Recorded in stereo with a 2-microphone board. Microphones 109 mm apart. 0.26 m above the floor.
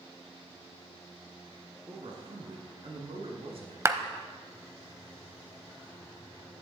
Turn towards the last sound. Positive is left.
turn(degrees=-25)  # may be behind; listen again after turning